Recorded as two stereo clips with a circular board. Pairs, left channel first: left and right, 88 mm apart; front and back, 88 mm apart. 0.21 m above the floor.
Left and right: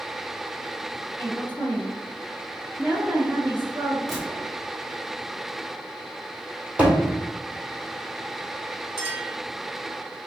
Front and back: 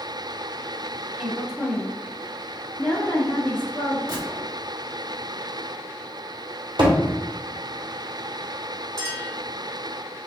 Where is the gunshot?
Straight behind, 1.9 m.